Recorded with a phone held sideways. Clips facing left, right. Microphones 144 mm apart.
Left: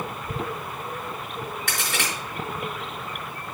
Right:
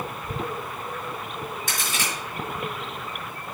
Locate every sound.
1.7 s a crack: 60° left (ahead or behind), 5 m